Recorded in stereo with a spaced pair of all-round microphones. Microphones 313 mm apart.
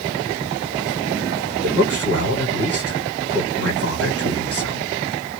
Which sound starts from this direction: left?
A man speaking, at 1.6 s.